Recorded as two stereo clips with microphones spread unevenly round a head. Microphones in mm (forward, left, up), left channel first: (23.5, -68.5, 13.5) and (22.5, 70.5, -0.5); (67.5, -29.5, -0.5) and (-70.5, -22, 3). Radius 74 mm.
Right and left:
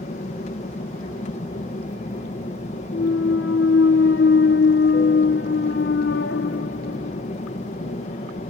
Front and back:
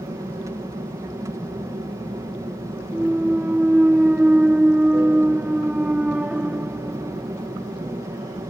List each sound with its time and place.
0.0 s an aircraft: 120° right
2.9 s a clunk: 100° right